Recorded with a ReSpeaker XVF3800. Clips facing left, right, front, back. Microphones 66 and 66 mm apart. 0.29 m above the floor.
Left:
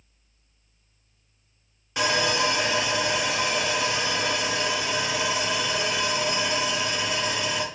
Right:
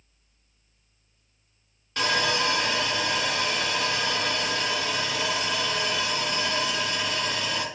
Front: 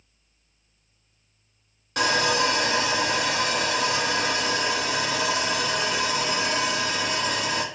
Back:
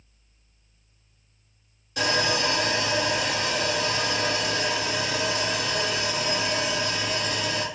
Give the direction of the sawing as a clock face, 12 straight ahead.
12 o'clock.